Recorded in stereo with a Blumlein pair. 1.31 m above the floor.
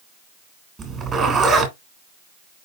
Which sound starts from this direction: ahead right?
A zipper, at 0.8 s.